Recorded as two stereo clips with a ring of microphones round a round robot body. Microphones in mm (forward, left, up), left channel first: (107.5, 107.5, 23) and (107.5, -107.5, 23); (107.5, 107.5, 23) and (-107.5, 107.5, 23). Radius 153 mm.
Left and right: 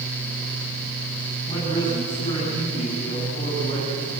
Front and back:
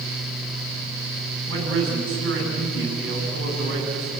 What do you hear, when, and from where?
1.5 s a man speaking: 165° left, 7 m